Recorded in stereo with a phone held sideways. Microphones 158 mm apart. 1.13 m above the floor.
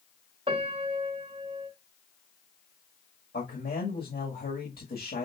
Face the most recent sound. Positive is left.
turn(degrees=85)